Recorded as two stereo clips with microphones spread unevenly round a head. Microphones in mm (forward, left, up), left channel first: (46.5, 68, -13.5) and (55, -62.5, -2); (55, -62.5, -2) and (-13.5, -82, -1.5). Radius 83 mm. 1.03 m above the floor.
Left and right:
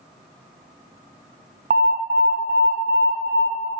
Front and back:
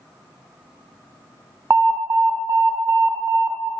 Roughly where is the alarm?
Behind right.